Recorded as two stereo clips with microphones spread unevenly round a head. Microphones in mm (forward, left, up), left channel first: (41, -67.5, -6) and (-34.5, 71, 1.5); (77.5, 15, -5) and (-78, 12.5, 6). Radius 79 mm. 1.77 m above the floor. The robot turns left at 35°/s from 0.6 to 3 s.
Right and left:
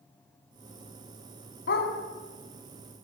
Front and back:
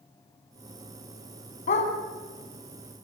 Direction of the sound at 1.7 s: 40° right.